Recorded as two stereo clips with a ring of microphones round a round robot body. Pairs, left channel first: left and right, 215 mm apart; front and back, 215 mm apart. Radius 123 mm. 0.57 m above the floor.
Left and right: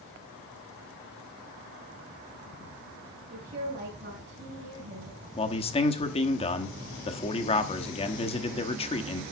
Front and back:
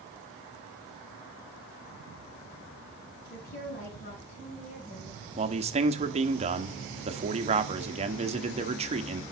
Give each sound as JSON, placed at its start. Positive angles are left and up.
{"t": 3.3, "sound": "a woman speaking", "azimuth_deg": -40, "distance_m": 5.0}
{"t": 5.4, "sound": "a man speaking", "azimuth_deg": 140, "distance_m": 1.1}